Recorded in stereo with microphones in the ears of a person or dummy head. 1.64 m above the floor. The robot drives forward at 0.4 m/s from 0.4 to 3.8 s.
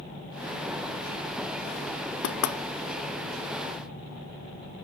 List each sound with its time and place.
2.2 s knocking: 70° left (ahead or behind), 0.9 m; by 2.6 s 65° left (ahead or behind), 0.9 m